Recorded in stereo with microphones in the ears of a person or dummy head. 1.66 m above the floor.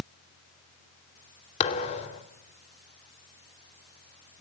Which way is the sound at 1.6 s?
35° left (ahead or behind).